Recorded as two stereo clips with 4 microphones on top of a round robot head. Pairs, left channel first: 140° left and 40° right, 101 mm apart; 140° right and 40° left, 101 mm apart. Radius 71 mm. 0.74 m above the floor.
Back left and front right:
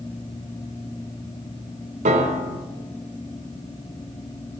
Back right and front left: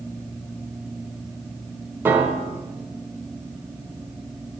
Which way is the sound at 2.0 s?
30° right.